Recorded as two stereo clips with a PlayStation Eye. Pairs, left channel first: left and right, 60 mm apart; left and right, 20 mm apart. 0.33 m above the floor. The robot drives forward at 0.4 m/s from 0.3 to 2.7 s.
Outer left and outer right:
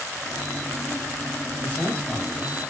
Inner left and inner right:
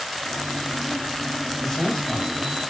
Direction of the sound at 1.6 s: 30° left (ahead or behind).